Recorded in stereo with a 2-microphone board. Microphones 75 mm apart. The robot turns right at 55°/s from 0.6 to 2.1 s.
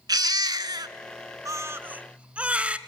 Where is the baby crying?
65° right (ahead or behind), 0.6 m; by 2.8 s 15° right (ahead or behind), 0.6 m.